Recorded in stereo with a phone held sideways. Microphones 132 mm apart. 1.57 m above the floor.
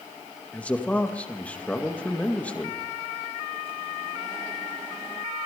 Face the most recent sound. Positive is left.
turn(degrees=10)  # may be behind; listen again after turning